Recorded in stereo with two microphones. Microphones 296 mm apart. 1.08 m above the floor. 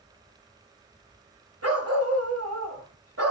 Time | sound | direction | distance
1.6 | a dog barking | 55° right (ahead or behind) | 1.4 m